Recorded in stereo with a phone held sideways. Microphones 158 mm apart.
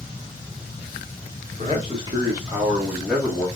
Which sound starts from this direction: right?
A man speaking, at 1.6 s.